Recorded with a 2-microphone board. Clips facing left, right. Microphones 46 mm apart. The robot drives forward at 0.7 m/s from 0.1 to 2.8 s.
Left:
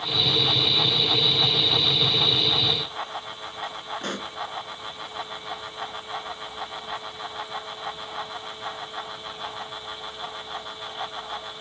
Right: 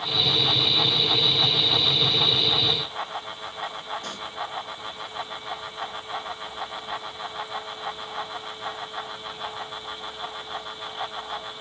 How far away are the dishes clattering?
No dishes clattering in this recording.